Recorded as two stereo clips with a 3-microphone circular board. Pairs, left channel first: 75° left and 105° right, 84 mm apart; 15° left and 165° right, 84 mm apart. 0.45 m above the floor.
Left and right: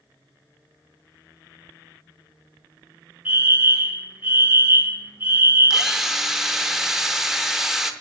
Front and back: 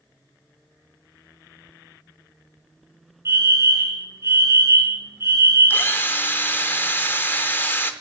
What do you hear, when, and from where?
3.2 s a fire alarm: 160° right, 2 m
5.7 s a drill: 25° right, 0.8 m